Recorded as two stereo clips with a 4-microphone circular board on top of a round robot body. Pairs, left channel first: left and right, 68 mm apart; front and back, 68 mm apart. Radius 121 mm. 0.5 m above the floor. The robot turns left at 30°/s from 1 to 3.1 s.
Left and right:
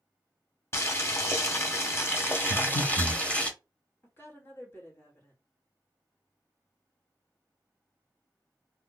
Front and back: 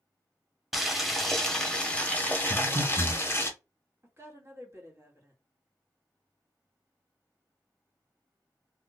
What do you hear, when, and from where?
0.7 s boiling: 95° left, 1.1 m; by 3.5 s 30° left, 1.1 m
2.5 s breathing: 120° left, 1.9 m; by 3.2 s 100° left, 1.9 m
4.0 s a woman speaking: 140° left, 2 m